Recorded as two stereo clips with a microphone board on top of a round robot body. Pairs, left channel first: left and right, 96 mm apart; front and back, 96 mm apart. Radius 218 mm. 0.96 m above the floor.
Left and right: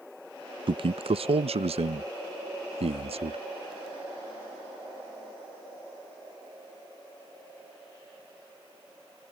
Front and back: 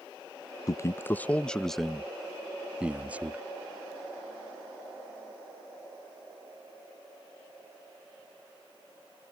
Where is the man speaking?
55° right; by 3.4 s 105° right.